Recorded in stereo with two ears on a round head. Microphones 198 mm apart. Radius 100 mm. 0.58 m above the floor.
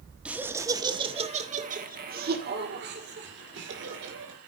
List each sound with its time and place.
0.2 s laughter: 5° right (ahead or behind), 1.2 m; by 4.4 s 60° right (ahead or behind), 2.5 m